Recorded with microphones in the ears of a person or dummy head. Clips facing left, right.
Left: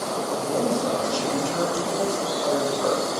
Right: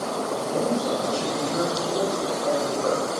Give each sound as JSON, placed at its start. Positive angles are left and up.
{"t": 0.3, "sound": "a man speaking", "side_deg": 50, "distance_m": 2.5}